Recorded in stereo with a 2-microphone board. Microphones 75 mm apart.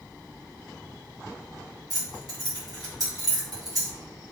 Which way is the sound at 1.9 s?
55° right (ahead or behind).